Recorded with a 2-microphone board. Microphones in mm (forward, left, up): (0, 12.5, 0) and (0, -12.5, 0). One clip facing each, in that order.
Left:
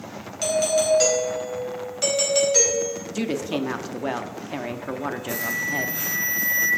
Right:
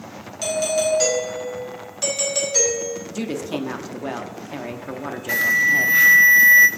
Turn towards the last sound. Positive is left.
turn(degrees=-55)  # may be behind; listen again after turning